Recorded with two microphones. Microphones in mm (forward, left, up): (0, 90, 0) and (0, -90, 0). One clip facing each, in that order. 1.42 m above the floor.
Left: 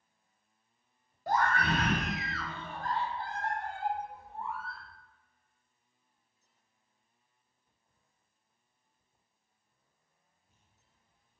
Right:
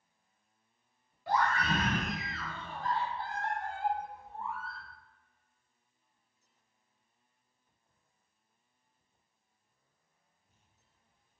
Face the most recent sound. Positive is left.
turn(degrees=30)  # may be behind; listen again after turning